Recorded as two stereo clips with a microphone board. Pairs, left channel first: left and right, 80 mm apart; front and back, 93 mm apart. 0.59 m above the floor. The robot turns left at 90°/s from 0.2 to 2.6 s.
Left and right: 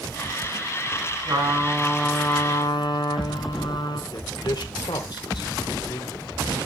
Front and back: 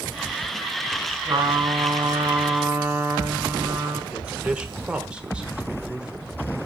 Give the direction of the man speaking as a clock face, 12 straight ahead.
9 o'clock.